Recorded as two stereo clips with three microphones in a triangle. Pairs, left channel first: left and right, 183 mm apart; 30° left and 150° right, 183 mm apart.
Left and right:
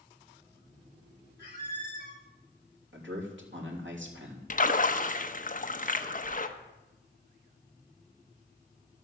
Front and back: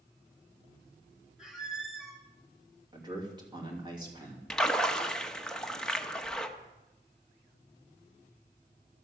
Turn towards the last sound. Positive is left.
turn(degrees=115)